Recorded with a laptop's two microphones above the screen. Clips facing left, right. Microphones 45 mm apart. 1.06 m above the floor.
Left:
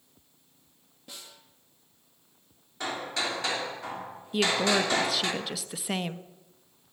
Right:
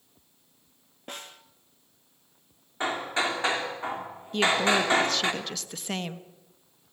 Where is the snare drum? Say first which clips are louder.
Right 7 dB; 45° right (ahead or behind), 1.2 m.